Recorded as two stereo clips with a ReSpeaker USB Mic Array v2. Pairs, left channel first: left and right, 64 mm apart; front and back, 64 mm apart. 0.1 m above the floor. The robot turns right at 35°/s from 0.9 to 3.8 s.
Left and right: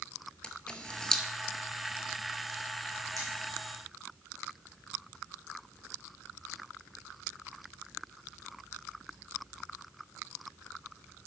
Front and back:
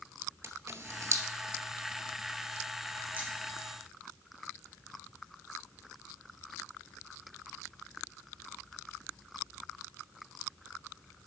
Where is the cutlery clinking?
115° right, 3.5 m; by 3.3 s 110° right, 3.5 m.